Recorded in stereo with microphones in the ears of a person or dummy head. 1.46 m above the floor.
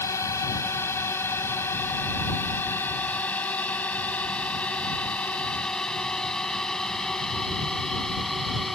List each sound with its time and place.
0.0 s a drone: 20° left (ahead or behind); by 8.8 s centre (ahead or behind)